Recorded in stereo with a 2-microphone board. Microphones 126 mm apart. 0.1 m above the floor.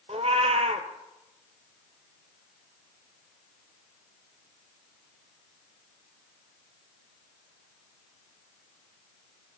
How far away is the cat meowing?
About 0.6 m.